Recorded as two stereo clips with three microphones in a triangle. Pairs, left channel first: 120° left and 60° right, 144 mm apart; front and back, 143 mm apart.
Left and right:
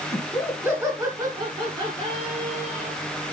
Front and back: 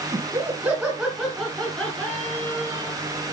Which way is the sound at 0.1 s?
140° right.